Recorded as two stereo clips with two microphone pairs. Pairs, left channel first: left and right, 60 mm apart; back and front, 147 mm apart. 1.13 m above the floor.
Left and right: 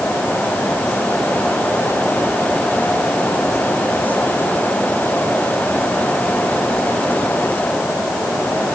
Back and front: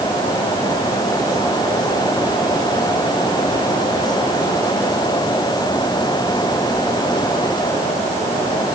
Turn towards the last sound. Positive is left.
No sound to turn to.